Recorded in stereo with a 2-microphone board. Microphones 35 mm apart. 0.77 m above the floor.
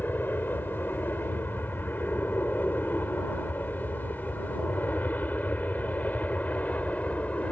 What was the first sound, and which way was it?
An aircraft, 65° left (ahead or behind).